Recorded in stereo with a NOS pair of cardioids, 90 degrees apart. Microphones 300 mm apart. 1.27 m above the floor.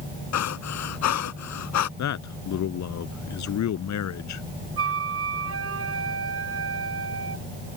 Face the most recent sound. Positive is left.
turn(degrees=-50)